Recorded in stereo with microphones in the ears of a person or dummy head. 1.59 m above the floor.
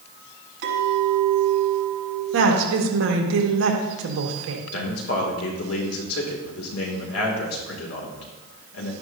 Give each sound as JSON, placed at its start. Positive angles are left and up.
{"t": 0.6, "sound": "a clink", "side_deg": -65, "distance_m": 5.5}
{"t": 2.3, "sound": "a woman speaking", "side_deg": -80, "distance_m": 1.7}
{"t": 4.7, "sound": "a man speaking", "side_deg": 80, "distance_m": 2.5}